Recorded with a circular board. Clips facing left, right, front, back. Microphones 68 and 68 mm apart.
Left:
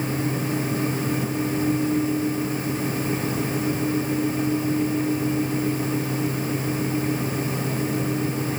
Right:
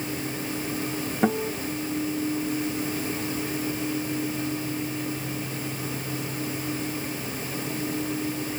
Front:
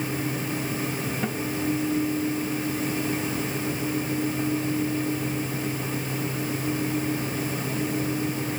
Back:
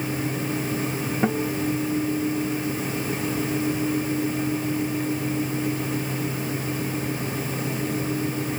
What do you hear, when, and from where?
1.2 s a guitar: 115° right